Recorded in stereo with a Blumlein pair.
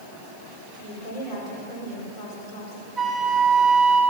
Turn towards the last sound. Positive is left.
turn(degrees=-10)